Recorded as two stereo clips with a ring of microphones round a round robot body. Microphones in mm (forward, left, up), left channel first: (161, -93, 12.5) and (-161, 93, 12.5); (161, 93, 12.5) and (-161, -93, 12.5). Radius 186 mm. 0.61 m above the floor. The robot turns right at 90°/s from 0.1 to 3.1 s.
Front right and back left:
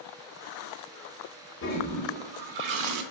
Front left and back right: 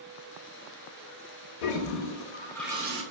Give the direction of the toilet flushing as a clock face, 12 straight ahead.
11 o'clock.